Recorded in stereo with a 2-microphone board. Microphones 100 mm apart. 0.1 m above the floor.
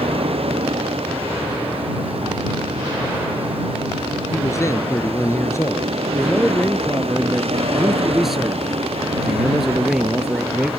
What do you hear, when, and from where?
0.0 s a vehicle: 75° right (ahead or behind); by 10.8 s 85° right
4.3 s a man speaking: 30° left (ahead or behind)
6.1 s a man speaking: centre (ahead or behind)